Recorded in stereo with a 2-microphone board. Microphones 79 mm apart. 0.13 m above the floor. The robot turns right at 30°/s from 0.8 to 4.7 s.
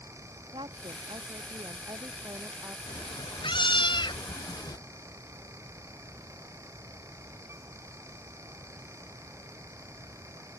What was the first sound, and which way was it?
A woman speaking, 90° right.